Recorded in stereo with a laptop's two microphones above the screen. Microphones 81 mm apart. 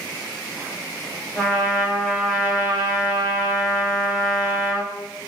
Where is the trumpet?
5° left (ahead or behind), 1.0 m.